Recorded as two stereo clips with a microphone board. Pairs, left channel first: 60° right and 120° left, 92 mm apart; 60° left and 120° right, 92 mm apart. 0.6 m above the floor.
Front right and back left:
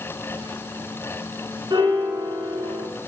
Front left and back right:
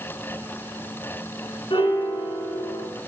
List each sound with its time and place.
1.7 s a piano: 85° left, 2 m